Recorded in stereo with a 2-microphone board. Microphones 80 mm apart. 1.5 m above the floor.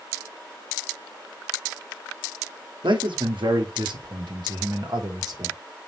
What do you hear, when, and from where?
2.8 s a man speaking: 80° right, 1.3 m; by 5.6 s 50° right (ahead or behind), 1.9 m